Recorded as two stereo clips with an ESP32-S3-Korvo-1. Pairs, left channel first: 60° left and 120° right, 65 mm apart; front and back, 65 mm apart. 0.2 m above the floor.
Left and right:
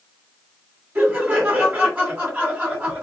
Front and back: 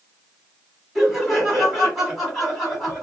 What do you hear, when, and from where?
0.9 s laughter: 90° right, 1.6 m